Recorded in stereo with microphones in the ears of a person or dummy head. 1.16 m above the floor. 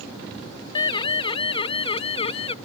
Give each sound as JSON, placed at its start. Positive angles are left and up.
{"t": 0.8, "sound": "a siren", "side_deg": 30}